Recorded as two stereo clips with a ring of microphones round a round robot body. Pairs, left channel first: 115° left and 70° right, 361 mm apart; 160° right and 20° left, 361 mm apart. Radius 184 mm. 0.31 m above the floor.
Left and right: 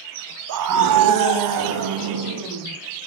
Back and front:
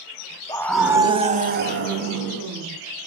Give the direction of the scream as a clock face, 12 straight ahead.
3 o'clock.